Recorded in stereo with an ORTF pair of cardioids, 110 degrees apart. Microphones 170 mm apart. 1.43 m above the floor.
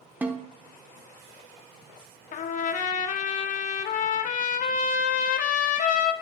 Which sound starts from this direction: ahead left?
A trumpet, at 2.3 s.